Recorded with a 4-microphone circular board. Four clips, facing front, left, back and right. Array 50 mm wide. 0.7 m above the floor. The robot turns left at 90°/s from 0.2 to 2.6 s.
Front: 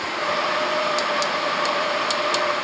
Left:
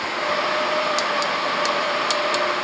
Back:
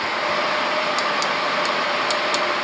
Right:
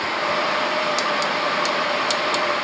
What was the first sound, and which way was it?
Only background noise.